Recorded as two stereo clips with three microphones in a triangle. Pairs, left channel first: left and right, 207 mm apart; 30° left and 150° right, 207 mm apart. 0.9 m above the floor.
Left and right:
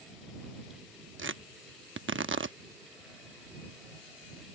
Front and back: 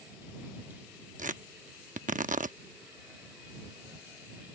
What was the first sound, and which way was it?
Tearing paper, 100° right.